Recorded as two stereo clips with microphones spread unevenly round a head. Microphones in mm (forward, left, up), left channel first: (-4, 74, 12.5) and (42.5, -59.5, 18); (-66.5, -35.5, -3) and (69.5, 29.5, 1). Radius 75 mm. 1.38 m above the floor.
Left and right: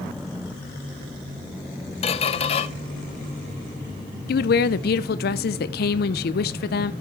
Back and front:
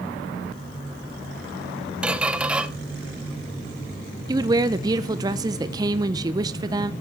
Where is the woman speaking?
95° left, 0.7 m.